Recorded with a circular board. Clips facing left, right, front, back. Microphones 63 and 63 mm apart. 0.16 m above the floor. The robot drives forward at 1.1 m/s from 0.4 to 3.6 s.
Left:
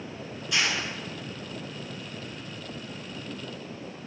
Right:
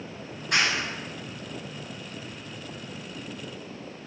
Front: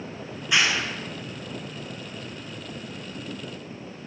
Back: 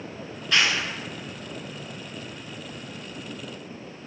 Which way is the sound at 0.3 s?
70° right.